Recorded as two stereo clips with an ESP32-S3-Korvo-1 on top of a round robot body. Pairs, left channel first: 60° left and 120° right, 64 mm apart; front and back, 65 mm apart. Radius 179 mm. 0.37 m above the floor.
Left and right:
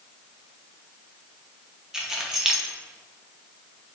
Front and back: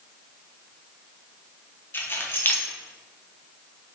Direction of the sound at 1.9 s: 40° right.